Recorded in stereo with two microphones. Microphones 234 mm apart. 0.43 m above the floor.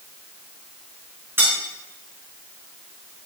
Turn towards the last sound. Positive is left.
turn(degrees=-10)  # may be behind; listen again after turning